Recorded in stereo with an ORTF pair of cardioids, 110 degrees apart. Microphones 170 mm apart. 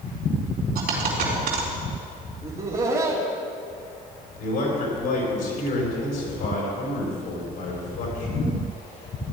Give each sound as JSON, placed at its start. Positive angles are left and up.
{"t": 0.8, "sound": "a dropped coin", "azimuth_deg": -65, "distance_m": 4.0}
{"t": 2.4, "sound": "laughter", "azimuth_deg": -35, "distance_m": 2.0}
{"t": 4.4, "sound": "a man speaking", "azimuth_deg": 70, "distance_m": 4.5}